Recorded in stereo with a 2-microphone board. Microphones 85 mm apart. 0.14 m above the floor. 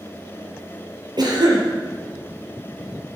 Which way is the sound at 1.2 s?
55° right (ahead or behind).